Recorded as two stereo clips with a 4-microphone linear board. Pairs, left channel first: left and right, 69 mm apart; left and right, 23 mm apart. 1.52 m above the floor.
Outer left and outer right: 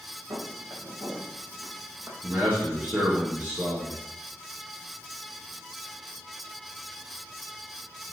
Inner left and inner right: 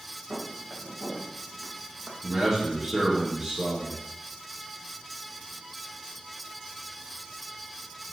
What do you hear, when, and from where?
0.3 s footsteps: 70° right (ahead or behind), 4.5 m; by 2.1 s 60° right (ahead or behind), 3 m
2.2 s a man speaking: 35° right (ahead or behind), 2.5 m